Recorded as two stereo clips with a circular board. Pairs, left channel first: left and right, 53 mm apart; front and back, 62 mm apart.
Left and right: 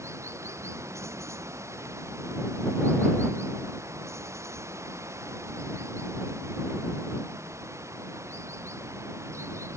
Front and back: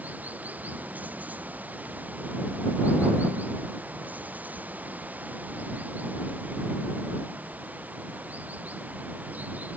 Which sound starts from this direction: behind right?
Running water, at 0.0 s.